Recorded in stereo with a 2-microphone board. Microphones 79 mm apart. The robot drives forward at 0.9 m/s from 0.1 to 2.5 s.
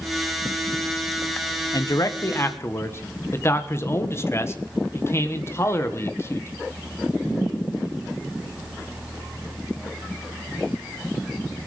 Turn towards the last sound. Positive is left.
turn(degrees=35)  # may be behind; listen again after turning